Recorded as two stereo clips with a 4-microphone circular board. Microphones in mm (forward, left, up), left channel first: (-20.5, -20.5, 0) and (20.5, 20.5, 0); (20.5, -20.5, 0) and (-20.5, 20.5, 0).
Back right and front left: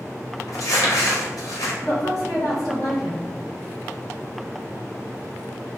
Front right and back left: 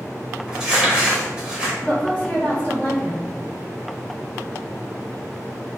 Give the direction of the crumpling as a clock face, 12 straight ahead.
5 o'clock.